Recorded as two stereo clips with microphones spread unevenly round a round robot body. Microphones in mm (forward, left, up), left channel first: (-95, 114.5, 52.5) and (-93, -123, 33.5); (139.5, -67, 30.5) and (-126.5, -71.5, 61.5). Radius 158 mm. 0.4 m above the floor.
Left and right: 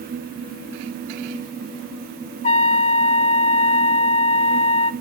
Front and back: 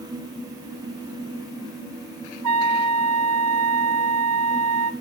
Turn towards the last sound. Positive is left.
turn(degrees=150)